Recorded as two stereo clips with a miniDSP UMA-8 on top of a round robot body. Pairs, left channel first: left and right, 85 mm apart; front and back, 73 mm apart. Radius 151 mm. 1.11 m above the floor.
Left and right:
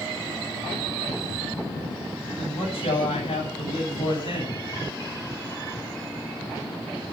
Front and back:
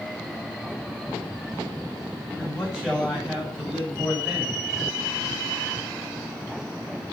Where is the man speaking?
100° left, 9.5 m.